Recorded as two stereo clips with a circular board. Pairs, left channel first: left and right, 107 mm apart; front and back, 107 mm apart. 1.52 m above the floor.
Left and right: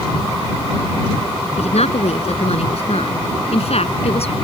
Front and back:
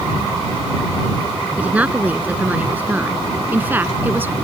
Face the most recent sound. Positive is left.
turn(degrees=110)